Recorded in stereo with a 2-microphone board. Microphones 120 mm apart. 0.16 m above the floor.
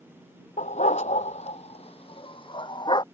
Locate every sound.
0.6 s a dog barking: 85° left; by 3.0 s 40° left (ahead or behind)